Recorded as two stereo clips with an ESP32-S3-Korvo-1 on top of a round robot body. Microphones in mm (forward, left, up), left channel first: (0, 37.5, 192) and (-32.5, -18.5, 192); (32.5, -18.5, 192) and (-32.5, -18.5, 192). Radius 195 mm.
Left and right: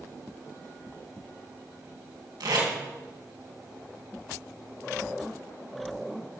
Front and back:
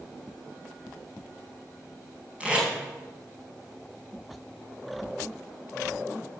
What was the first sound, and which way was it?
Tape being pulled, 105° right.